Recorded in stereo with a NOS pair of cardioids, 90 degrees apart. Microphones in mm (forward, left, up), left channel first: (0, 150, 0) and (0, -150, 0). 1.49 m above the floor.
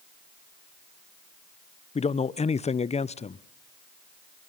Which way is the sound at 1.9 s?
20° left.